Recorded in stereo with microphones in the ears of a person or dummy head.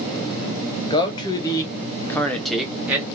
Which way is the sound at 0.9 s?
25° left (ahead or behind).